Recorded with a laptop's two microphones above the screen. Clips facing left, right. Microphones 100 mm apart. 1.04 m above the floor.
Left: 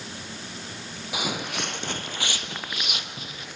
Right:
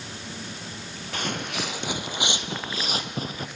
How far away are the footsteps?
About 1.2 m.